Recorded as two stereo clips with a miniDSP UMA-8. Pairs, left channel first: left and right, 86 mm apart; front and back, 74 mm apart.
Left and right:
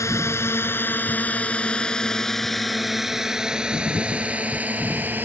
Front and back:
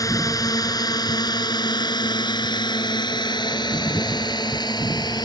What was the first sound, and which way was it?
A drone, 35° left.